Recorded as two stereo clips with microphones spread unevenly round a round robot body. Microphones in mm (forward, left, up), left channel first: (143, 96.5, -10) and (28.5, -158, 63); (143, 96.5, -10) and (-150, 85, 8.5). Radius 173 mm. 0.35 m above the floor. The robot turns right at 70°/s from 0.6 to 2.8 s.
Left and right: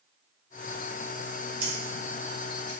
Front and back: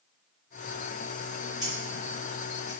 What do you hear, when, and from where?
1.6 s scissors: 105° right, 1.5 m; by 2.7 s 25° right, 1.5 m